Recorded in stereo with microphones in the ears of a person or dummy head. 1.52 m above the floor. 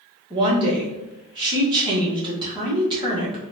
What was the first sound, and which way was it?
A woman speaking, 25° right (ahead or behind).